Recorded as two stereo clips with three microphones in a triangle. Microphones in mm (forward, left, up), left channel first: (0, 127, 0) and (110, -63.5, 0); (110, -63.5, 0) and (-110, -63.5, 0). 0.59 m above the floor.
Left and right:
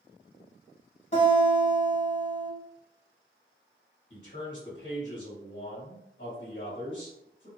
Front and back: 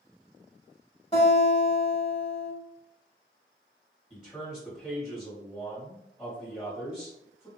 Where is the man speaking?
85° left, 1.7 m.